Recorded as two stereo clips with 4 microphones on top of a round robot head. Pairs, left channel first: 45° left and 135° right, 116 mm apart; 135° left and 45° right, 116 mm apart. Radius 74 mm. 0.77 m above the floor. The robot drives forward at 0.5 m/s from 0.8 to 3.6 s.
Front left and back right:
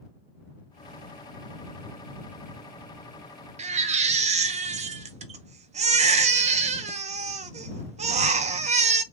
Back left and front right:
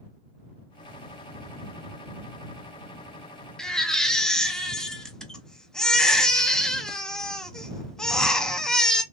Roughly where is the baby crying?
Behind right.